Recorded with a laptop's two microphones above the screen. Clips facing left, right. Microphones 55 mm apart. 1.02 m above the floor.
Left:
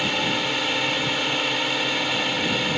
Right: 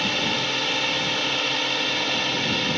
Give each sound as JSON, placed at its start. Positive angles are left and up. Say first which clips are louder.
{"t": 0.0, "sound": "a drone", "louder": "left 1 dB", "side_deg": 5}